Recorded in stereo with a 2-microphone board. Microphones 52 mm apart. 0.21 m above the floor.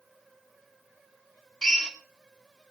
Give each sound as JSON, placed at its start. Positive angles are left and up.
{"t": 1.6, "sound": "a drill", "side_deg": 10, "distance_m": 3.0}